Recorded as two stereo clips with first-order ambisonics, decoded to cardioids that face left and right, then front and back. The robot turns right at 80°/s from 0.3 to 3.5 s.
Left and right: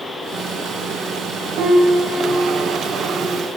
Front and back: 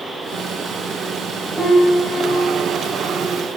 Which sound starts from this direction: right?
A piano, at 1.6 s.